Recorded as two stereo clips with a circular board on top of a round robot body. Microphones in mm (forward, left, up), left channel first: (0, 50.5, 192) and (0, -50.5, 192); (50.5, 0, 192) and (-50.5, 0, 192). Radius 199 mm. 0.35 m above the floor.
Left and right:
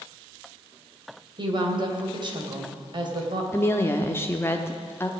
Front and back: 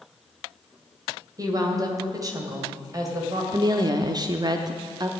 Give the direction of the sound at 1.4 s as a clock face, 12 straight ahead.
4 o'clock.